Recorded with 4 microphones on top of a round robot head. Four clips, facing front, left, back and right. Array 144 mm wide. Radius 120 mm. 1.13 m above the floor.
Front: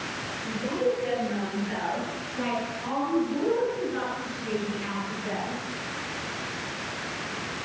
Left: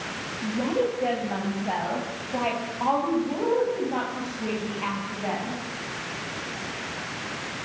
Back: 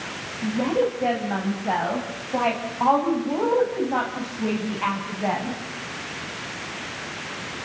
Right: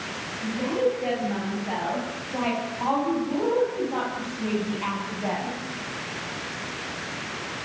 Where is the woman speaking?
165° left, 9.5 m; by 5.6 s 170° right, 10 m.